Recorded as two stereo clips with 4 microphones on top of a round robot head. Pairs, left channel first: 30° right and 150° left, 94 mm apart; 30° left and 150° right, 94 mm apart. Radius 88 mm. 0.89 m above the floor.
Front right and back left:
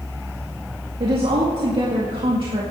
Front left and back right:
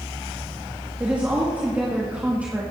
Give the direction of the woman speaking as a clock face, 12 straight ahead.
7 o'clock.